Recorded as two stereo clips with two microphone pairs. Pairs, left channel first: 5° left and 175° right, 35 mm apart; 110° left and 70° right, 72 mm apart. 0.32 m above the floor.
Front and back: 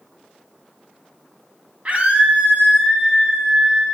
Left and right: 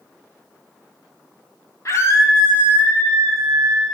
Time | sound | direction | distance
1.9 | a scream | 145° left | 2.0 m